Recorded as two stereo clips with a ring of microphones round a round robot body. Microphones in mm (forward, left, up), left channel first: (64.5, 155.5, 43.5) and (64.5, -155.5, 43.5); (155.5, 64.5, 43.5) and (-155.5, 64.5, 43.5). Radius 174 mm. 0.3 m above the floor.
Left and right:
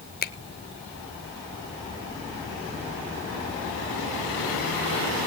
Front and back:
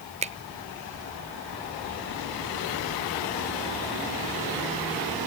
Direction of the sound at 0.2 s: 125° left.